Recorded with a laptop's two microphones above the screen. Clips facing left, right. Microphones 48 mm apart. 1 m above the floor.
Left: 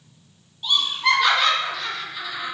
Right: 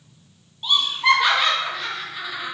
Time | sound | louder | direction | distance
0.6 | laughter | right 2 dB | 20° right (ahead or behind) | 0.7 m